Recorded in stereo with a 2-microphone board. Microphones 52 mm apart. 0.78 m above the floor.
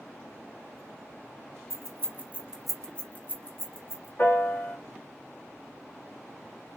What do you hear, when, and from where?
1.7 s keys jangling: 55° right (ahead or behind), 0.9 m; by 4.1 s 55° left (ahead or behind), 1.3 m
4.2 s a piano: 40° left (ahead or behind), 1.3 m